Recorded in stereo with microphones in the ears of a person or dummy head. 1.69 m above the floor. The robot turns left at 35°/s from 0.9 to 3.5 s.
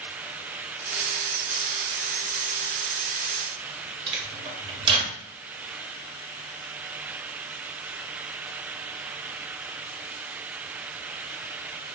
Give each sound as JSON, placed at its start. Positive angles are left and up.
{"t": 4.1, "sound": "a microwave", "side_deg": -25, "distance_m": 0.8}